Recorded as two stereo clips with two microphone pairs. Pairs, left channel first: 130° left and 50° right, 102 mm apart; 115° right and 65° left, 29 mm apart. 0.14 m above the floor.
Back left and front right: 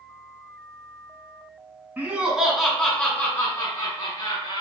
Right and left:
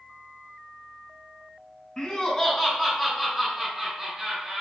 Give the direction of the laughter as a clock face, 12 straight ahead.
3 o'clock.